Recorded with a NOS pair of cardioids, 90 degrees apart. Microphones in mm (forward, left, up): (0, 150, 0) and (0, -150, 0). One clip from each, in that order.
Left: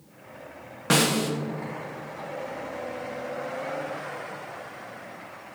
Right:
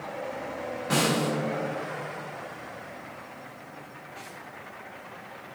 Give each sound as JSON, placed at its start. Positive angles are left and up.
{"t": 0.9, "sound": "a snare drum", "azimuth_deg": 60, "distance_m": 1.4}